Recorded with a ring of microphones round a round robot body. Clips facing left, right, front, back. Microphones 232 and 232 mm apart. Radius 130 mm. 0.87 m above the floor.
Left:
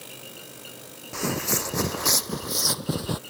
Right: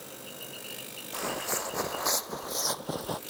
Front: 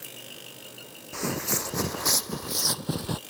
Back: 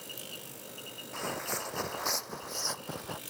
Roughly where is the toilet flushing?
I don't hear a toilet flushing.